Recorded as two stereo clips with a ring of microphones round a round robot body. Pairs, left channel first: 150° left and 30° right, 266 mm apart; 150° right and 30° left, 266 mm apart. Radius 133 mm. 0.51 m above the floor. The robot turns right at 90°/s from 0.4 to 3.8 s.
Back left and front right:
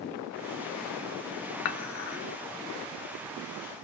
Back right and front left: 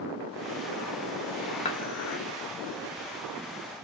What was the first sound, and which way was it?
Dishes clattering, 145° left.